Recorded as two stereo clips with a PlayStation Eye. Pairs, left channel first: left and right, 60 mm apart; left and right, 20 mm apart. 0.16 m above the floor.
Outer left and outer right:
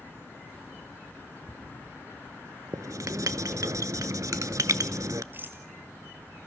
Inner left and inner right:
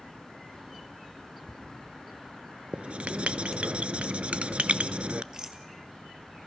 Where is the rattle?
35° right (ahead or behind), 1.8 m.